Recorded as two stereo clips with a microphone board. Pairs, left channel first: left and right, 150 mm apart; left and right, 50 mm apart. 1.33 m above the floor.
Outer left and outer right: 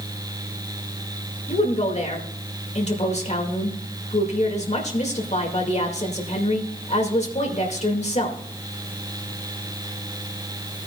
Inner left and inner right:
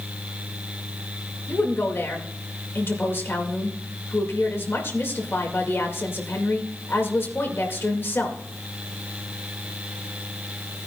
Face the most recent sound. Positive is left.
turn(degrees=50)  # may be behind; listen again after turning